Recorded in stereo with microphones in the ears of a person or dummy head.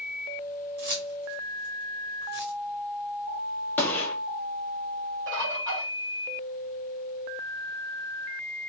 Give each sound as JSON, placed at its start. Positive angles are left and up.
{"t": 0.8, "sound": "keys jangling", "side_deg": -50, "distance_m": 1.7}
{"t": 3.8, "sound": "a gunshot", "side_deg": 10, "distance_m": 1.1}
{"t": 5.3, "sound": "a bird", "side_deg": -60, "distance_m": 2.5}